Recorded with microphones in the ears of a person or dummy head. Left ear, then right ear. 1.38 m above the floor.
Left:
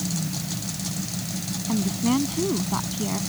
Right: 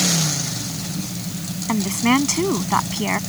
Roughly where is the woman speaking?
Right.